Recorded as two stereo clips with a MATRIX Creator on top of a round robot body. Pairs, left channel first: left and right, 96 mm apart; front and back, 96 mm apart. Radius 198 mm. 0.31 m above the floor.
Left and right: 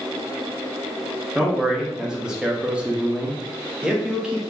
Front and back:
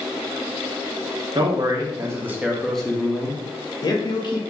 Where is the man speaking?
175° right, 1.1 m; by 4.4 s 10° right, 1.3 m.